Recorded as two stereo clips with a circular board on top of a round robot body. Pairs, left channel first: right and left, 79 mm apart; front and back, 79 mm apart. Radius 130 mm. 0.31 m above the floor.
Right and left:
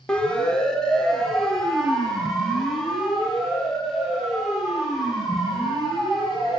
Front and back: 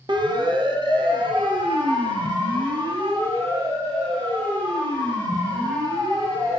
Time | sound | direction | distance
0.1 | a siren | 170° right | 3.5 m